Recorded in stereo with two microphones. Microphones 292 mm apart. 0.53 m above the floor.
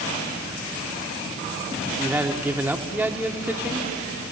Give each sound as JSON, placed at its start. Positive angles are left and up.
{"t": 2.0, "sound": "a man speaking", "side_deg": -5, "distance_m": 1.1}